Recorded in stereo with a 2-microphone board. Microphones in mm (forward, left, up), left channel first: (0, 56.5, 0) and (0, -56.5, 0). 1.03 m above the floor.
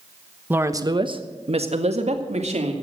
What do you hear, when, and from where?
0.5 s a woman speaking: 15° right (ahead or behind), 1.1 m; by 2.7 s 75° right (ahead or behind), 3 m